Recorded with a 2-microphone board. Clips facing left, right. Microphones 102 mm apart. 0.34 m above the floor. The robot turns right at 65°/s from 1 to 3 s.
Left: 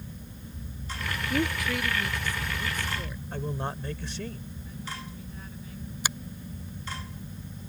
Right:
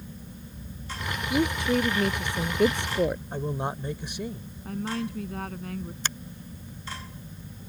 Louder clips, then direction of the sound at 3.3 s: Right 3 dB; 15° right (ahead or behind).